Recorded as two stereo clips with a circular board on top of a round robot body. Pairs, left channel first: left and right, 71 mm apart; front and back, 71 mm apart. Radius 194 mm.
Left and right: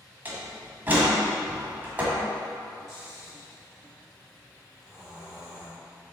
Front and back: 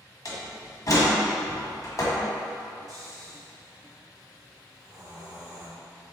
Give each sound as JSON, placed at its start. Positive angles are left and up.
{"t": 0.2, "sound": "a door slam", "azimuth_deg": -30, "distance_m": 1.3}
{"t": 2.9, "sound": "snoring", "azimuth_deg": -170, "distance_m": 1.9}